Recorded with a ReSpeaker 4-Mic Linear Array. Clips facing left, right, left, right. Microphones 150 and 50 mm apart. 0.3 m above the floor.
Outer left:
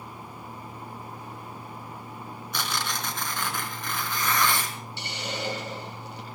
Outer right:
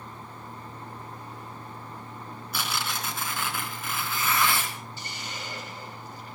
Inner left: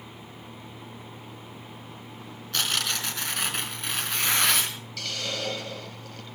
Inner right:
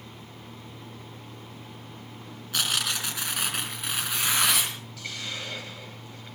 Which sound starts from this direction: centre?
Tearing paper, at 2.5 s.